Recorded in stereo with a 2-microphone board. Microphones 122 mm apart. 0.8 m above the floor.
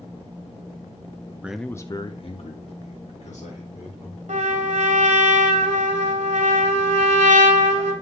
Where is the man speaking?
10° right (ahead or behind), 0.7 m; by 4.2 s 75° left (ahead or behind), 3 m.